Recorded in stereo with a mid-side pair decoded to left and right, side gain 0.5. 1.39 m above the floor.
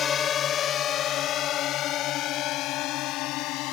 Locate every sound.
0.0 s a drone: 45° left; by 3.7 s 80° left